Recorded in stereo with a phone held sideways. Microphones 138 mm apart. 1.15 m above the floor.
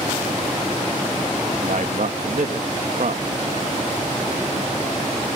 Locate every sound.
1.6 s a man speaking: 70° right (ahead or behind)